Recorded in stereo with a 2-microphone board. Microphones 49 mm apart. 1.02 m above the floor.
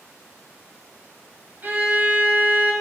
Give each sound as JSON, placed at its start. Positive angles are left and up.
{"t": 1.6, "sound": "a violin", "side_deg": -40, "distance_m": 1.1}